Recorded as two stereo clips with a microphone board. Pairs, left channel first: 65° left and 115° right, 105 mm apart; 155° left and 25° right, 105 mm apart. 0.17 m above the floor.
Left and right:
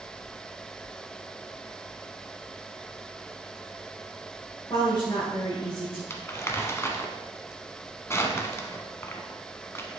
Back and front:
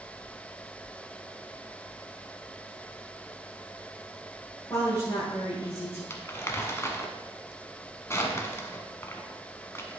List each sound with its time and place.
4.7 s a woman speaking: 110° left, 4 m
6.1 s crumpling: 110° left, 1.0 m